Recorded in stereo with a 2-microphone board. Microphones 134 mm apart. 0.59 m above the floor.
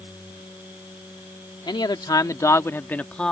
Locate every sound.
1.7 s a man speaking: 35° left (ahead or behind); by 3.3 s 5° left (ahead or behind)